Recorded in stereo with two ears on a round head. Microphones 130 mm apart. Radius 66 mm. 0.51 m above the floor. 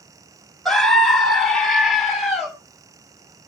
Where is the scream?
Centre (ahead or behind), 1.2 m.